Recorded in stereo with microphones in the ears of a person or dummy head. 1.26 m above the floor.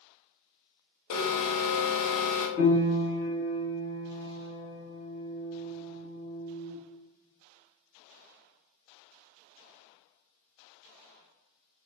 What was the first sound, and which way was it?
An alarm, 60° left (ahead or behind).